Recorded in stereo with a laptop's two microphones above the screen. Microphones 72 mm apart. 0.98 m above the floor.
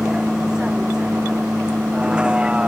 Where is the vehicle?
5° right (ahead or behind); by 2.7 s 10° right (ahead or behind).